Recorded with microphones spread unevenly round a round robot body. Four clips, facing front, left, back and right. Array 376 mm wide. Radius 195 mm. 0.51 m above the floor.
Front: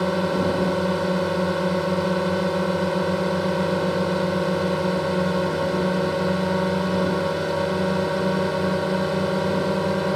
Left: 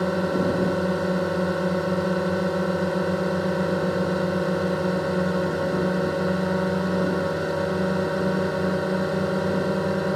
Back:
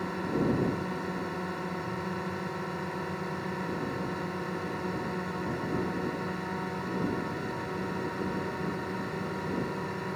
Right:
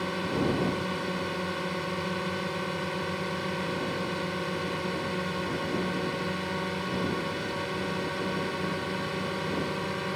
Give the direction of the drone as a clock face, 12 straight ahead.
11 o'clock.